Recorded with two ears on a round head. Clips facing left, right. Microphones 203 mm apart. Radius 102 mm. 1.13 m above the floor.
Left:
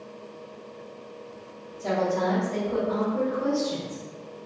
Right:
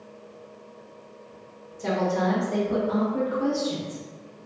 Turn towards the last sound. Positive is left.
turn(degrees=-25)  # may be behind; listen again after turning